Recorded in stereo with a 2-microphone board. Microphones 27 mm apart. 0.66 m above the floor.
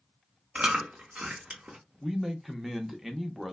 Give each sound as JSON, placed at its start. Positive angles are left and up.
{"t": 0.6, "sound": "chewing", "side_deg": -50, "distance_m": 0.9}
{"t": 2.0, "sound": "a man speaking", "side_deg": -10, "distance_m": 0.7}